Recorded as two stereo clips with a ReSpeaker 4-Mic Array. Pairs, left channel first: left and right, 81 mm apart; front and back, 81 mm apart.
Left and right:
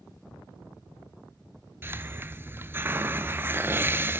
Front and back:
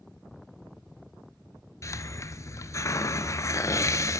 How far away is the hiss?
About 0.8 m.